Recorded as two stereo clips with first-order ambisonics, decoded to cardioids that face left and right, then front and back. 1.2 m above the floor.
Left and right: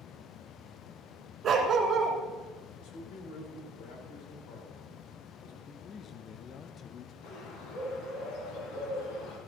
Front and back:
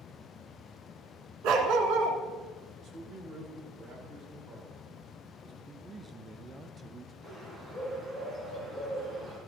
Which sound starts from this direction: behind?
A dog barking, at 1.4 s.